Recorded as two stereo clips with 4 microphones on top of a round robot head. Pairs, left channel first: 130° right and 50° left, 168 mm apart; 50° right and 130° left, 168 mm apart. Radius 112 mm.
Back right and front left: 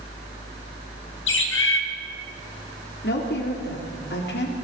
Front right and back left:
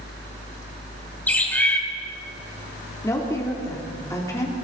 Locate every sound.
1.3 s a bird: 130° right, 2.5 m
3.0 s a woman speaking: 125° right, 3 m